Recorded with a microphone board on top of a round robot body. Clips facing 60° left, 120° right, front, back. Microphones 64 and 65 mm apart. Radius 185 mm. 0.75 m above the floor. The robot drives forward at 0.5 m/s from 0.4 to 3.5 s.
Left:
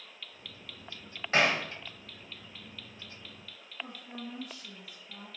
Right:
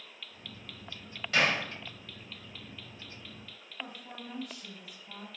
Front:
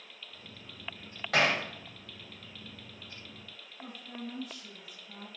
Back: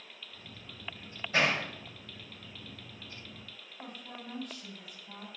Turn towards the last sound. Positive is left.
turn(degrees=-140)